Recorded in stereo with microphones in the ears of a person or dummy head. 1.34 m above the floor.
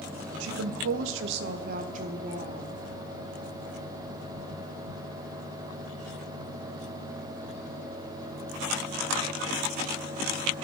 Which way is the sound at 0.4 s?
70° right (ahead or behind).